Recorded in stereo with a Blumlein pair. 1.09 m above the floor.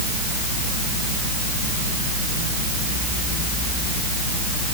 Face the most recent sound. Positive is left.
No sound to turn to.